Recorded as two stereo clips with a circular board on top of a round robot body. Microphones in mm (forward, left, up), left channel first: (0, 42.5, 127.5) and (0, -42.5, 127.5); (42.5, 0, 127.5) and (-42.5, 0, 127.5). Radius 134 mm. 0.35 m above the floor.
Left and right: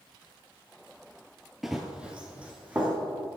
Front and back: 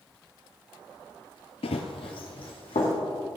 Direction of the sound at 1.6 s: Straight ahead.